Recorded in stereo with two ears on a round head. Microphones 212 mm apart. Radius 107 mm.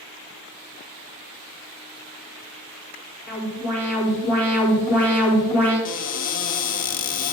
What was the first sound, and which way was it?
An alarm, 10° left (ahead or behind).